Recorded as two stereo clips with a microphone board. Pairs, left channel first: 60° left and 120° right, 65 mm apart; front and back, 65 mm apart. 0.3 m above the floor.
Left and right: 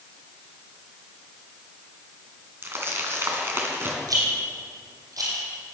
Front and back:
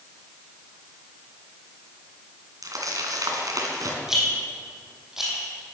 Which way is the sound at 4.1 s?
95° right.